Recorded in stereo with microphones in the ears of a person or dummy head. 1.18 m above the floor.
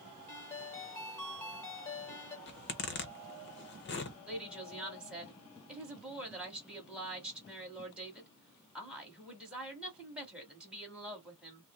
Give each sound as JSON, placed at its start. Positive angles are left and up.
{"t": 0.3, "sound": "a ringtone", "side_deg": 10, "distance_m": 1.4}
{"t": 2.5, "sound": "a zipper", "side_deg": 50, "distance_m": 1.0}
{"t": 4.3, "sound": "a woman speaking", "side_deg": -5, "distance_m": 2.0}